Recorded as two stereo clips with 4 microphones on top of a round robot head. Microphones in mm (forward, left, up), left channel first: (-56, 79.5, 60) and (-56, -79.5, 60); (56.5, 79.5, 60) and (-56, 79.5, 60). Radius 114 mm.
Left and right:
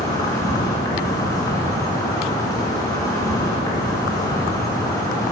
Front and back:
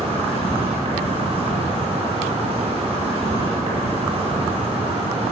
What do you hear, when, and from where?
0.0 s an insect: 160° left, 2.5 m